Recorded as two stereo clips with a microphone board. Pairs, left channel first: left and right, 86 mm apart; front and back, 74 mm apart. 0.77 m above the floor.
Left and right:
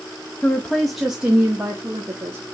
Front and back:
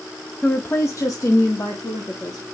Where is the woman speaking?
65° left, 0.6 m; by 2.4 s 30° right, 1.8 m.